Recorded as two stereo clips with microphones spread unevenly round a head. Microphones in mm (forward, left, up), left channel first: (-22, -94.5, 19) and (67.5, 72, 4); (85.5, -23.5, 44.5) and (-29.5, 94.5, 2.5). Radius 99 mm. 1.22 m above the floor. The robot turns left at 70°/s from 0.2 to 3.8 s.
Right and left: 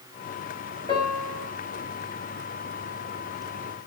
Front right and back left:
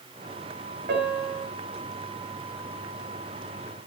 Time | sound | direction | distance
0.9 | a piano | 175° left | 5 m